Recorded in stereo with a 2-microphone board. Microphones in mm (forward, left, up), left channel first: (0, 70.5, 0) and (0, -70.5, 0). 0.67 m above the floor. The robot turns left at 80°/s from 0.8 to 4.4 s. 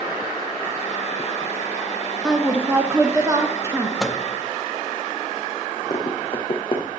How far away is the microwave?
About 0.7 m.